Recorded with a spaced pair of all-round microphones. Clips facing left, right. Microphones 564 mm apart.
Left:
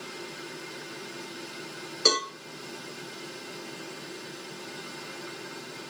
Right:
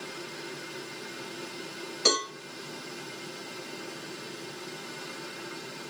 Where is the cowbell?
20° right (ahead or behind), 2.5 m.